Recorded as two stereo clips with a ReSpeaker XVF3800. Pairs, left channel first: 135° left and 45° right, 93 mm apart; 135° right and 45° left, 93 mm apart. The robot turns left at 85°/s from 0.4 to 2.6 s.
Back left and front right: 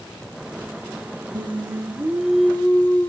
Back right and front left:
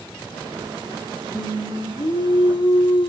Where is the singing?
55° right, 1.1 m; by 3.1 s 160° right, 1.1 m.